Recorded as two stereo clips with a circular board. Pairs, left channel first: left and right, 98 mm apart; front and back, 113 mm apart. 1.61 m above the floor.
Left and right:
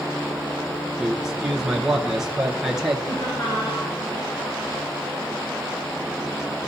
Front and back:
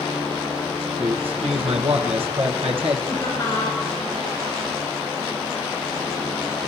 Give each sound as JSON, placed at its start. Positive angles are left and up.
{"t": 1.0, "sound": "a man speaking", "azimuth_deg": -175, "distance_m": 1.1}
{"t": 3.1, "sound": "laughter", "azimuth_deg": 45, "distance_m": 6.5}